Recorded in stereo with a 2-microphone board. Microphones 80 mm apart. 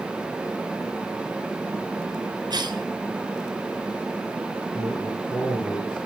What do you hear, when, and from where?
2.5 s a cough: 60° right (ahead or behind), 3.5 m
4.7 s a man speaking: 85° left, 9.5 m